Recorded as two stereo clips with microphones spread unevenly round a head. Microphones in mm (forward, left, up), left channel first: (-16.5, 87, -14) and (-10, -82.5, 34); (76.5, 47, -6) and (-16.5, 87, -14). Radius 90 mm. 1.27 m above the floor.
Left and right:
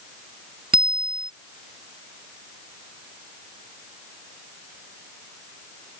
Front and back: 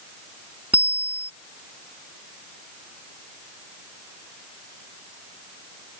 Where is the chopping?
I don't hear chopping.